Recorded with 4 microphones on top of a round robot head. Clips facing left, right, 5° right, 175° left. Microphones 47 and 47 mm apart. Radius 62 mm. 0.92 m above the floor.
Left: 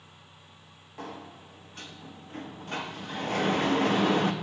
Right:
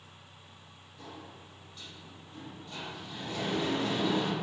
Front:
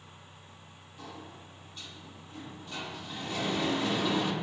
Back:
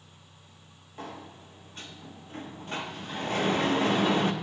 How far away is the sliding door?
About 0.5 m.